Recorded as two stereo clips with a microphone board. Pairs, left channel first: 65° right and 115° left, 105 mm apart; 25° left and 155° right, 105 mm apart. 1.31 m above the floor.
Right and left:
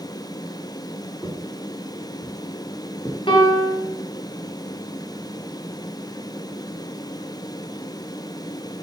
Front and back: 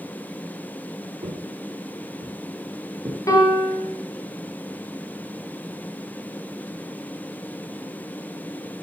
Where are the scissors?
I don't hear scissors.